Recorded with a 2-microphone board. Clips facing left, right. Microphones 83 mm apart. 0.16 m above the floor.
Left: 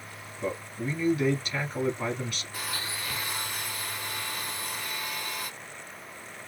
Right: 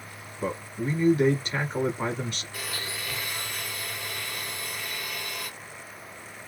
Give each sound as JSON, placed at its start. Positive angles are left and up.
{"t": 0.4, "sound": "a man speaking", "side_deg": -30, "distance_m": 1.2}
{"t": 2.5, "sound": "a blender", "side_deg": 35, "distance_m": 2.0}